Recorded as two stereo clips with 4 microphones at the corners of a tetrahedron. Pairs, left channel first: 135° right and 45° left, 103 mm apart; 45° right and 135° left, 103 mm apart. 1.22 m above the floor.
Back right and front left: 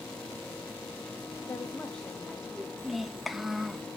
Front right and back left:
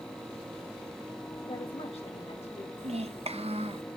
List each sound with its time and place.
1.4 s a woman speaking: 85° right, 0.7 m; by 2.7 s 35° right, 1.5 m
2.8 s a child speaking: 130° left, 0.7 m